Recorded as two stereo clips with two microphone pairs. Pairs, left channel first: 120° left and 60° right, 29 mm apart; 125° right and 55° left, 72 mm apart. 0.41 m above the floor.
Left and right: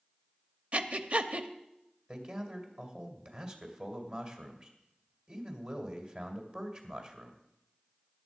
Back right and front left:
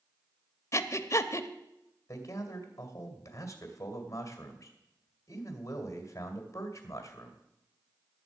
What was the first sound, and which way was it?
Breathing, 90° right.